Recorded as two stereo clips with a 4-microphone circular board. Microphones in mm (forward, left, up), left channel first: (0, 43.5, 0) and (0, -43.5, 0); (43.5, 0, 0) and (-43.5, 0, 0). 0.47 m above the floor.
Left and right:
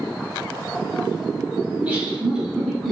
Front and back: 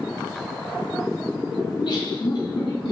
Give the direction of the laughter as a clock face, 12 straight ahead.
1 o'clock.